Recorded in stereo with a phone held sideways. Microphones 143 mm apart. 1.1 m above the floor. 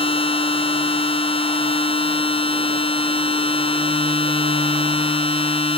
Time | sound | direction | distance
0.0 | a machine running | 40° left (ahead or behind) | ?